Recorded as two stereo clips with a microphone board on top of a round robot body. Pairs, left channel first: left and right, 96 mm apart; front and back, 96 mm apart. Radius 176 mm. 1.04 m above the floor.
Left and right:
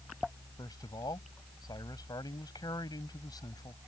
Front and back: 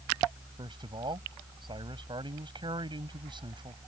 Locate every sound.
0.6 s a man speaking: 140° left